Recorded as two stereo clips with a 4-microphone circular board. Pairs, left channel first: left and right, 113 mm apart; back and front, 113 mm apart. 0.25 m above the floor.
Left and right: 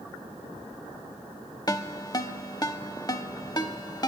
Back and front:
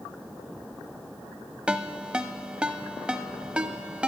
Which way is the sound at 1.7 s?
75° left.